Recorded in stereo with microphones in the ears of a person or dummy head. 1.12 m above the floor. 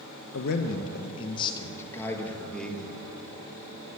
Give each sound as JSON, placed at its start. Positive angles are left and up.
{"t": 0.3, "sound": "a man speaking", "side_deg": 60, "distance_m": 0.7}